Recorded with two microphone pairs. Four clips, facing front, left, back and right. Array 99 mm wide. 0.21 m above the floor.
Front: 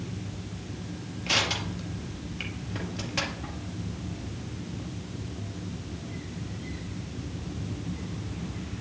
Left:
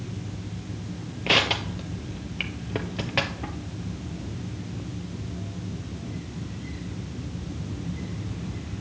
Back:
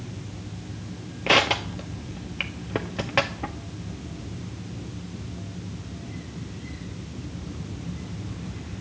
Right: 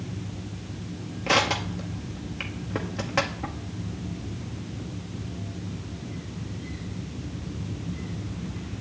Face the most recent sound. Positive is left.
turn(degrees=180)